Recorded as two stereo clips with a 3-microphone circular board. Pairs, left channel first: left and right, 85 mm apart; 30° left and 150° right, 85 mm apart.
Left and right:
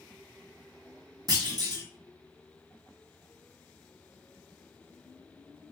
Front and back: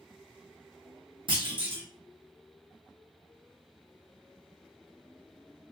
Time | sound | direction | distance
1.3 | a clunk | 135° right | 1.1 m